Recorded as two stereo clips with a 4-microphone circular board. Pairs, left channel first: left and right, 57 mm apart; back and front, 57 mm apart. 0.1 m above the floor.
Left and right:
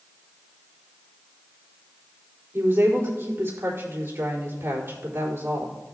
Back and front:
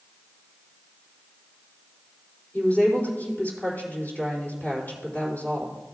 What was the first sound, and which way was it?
A woman speaking, 125° right.